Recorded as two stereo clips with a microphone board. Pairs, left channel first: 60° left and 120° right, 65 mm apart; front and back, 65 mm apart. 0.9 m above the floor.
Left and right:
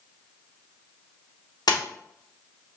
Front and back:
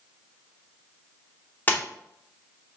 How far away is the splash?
About 1.0 m.